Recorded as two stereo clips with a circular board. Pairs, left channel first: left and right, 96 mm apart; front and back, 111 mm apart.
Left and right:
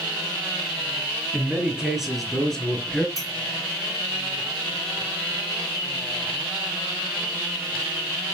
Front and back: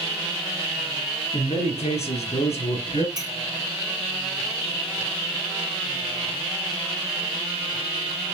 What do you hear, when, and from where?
1.3 s a man speaking: 15° right, 4 m; by 3.1 s 15° left, 4 m
3.2 s a clink: 135° left, 1.9 m